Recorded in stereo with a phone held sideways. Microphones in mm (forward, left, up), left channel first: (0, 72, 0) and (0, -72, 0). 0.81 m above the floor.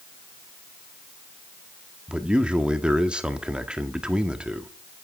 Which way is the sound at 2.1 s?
5° right (ahead or behind).